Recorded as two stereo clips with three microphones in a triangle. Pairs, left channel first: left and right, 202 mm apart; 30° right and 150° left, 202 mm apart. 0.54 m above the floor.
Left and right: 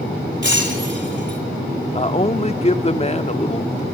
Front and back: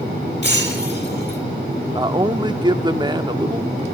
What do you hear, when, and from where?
0.4 s breaking glass: 65° right, 6 m
1.9 s a man speaking: 105° left, 0.8 m